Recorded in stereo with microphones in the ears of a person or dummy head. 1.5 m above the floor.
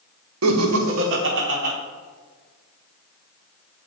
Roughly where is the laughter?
Right.